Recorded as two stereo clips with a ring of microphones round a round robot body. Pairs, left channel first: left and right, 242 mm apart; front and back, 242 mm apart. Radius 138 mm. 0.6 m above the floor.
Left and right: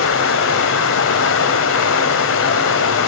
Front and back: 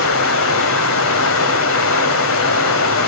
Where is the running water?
45° left, 1.1 m.